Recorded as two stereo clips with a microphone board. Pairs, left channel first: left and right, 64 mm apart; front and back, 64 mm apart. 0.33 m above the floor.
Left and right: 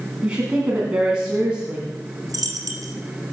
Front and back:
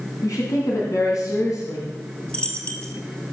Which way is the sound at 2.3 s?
70° right.